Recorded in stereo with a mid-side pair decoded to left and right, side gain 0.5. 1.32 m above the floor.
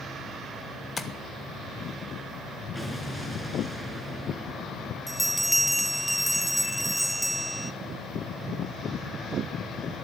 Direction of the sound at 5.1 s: 5° right.